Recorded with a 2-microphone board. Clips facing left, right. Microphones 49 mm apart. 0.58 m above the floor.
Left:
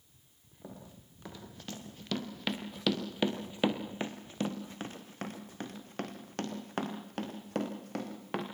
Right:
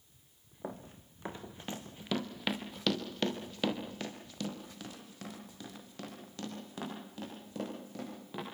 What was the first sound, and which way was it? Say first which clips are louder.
Running footsteps: right 5 dB; 40° right (ahead or behind).